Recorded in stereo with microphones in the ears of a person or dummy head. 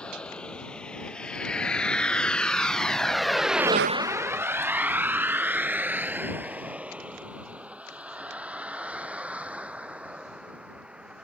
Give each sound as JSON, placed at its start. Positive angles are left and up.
{"t": 0.0, "sound": "a vehicle", "side_deg": 10}